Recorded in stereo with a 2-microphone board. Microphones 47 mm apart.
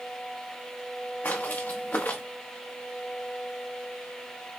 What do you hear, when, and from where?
1.2 s footsteps: 45° left (ahead or behind), 1.1 m